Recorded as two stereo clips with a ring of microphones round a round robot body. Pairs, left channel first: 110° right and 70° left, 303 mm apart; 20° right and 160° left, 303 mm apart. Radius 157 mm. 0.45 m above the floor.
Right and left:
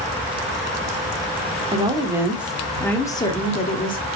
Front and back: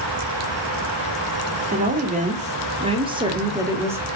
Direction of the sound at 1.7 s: 125° left.